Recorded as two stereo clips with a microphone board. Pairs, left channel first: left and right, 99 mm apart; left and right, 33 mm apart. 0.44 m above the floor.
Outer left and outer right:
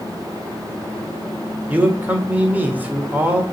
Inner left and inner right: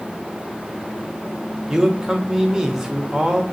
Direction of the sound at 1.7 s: 15° right (ahead or behind).